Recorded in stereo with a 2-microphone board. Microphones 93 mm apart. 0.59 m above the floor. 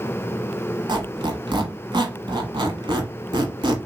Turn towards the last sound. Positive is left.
turn(degrees=-55)  # may be behind; listen again after turning